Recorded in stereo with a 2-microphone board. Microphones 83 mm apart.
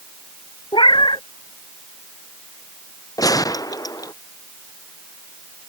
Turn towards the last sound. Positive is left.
turn(degrees=50)  # may be behind; listen again after turning